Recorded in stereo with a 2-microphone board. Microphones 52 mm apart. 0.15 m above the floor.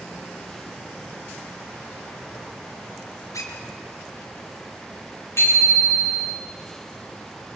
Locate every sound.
3.3 s a squeak: 85° left, 4.5 m
5.4 s a bicycle bell: 55° left (ahead or behind), 8.5 m